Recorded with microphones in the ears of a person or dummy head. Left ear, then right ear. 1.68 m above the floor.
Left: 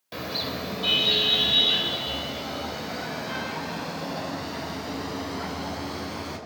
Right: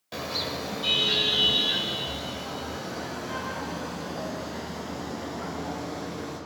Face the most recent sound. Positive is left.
turn(degrees=45)  # may be behind; listen again after turning